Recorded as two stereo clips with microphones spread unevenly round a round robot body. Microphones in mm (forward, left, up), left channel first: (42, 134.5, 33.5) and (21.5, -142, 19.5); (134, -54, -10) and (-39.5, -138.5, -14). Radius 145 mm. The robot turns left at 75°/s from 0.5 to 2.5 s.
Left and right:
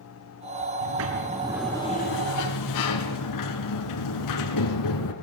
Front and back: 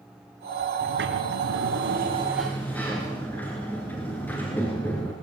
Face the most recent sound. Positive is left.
turn(degrees=110)